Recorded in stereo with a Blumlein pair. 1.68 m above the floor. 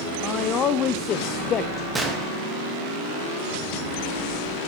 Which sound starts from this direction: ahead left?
A man speaking, at 0.2 s.